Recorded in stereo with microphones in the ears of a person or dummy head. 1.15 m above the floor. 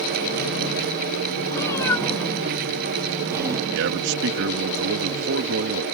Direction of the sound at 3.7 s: 65° right (ahead or behind).